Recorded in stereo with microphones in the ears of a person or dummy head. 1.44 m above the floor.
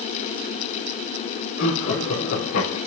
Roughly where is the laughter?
Left.